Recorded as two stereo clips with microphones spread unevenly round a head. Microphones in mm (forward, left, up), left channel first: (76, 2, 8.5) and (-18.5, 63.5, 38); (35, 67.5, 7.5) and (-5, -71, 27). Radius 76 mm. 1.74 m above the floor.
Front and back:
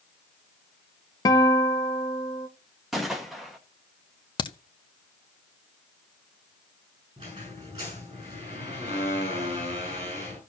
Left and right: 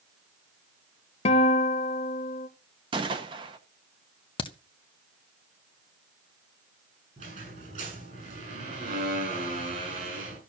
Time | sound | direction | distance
1.2 | a guitar | 30° left | 1.0 m
2.9 | a gunshot | 140° right | 0.9 m
4.4 | a crack | 15° left | 0.9 m
7.2 | a squeak | 150° right | 7 m